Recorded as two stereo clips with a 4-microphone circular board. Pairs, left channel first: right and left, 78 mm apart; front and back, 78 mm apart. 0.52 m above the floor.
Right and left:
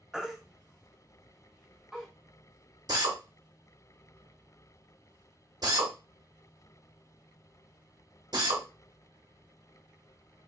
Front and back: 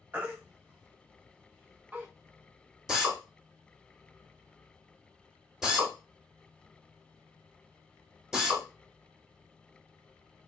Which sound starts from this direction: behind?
A baby crying, at 0.1 s.